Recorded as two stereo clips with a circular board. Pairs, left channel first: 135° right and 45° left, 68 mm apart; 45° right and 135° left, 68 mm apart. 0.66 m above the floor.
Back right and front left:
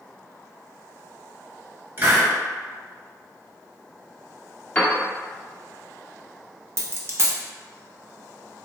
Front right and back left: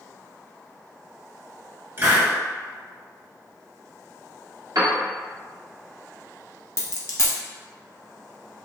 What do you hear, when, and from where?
2.0 s a hiss: 90° left, 1.5 m
4.8 s a piano: 160° left, 0.8 m
6.8 s a dropped coin: straight ahead, 0.6 m